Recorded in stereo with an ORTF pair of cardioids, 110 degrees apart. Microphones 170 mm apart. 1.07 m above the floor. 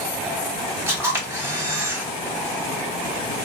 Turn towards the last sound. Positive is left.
turn(degrees=-15)